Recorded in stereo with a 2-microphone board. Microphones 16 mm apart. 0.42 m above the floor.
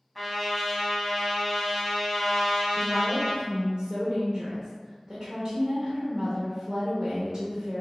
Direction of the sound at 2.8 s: 25° right (ahead or behind).